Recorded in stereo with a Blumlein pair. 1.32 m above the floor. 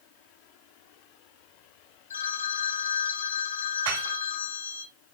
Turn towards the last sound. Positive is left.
turn(degrees=-50)